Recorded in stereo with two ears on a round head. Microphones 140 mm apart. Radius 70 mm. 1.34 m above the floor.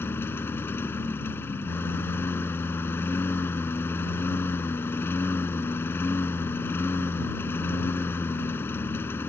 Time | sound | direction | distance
0.0 | a lawn mower | 15° left (ahead or behind) | ?